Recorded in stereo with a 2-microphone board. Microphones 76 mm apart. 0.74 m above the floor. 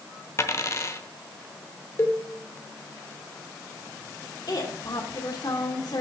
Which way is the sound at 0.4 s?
40° left (ahead or behind).